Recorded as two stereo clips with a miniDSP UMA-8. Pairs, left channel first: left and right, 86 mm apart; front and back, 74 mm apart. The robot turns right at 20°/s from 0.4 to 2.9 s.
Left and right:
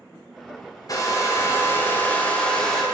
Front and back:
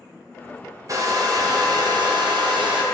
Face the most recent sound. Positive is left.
turn(degrees=175)